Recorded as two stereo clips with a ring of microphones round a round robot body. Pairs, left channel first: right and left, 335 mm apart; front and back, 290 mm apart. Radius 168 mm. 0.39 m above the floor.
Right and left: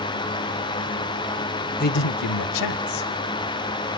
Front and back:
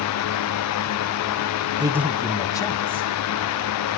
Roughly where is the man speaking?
Behind right.